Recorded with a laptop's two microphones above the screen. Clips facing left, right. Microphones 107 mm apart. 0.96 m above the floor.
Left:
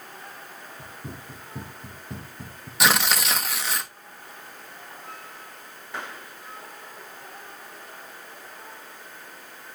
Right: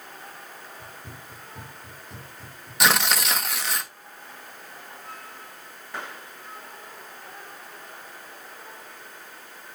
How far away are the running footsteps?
About 5 m.